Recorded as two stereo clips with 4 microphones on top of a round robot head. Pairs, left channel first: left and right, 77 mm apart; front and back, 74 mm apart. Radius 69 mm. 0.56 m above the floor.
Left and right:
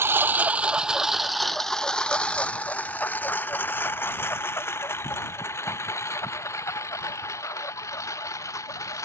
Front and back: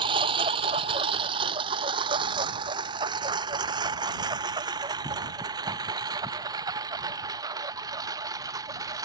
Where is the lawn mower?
150° right; by 9.0 s 140° left.